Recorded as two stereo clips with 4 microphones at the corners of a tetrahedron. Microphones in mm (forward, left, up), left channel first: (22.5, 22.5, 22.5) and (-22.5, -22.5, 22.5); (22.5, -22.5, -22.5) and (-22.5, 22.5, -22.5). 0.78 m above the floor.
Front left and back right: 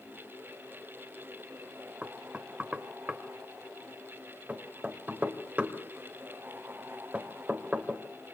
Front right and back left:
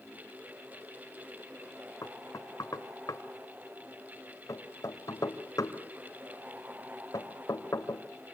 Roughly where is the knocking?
Right.